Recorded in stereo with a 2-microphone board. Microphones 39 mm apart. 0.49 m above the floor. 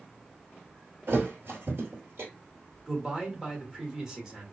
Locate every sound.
1.1 s a thud: 70° right (ahead or behind), 1.4 m
2.9 s a man speaking: 20° right (ahead or behind), 1.1 m